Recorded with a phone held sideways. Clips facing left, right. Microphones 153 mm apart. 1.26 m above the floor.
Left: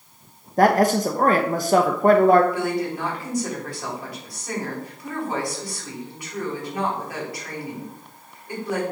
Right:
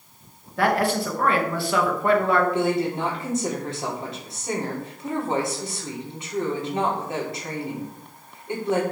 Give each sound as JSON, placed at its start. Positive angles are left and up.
{"t": 0.6, "sound": "a man speaking", "side_deg": 40, "distance_m": 0.9}
{"t": 2.5, "sound": "a woman speaking", "side_deg": -25, "distance_m": 4.0}